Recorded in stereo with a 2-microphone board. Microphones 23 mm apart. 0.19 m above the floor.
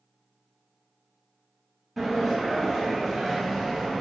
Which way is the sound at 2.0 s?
5° right (ahead or behind).